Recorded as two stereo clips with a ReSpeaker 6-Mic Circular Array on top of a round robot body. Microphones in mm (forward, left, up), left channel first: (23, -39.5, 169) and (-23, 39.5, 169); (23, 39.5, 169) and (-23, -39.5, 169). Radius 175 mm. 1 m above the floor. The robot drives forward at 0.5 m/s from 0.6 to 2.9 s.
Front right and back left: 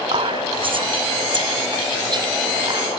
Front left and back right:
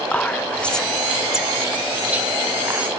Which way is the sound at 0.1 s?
135° left.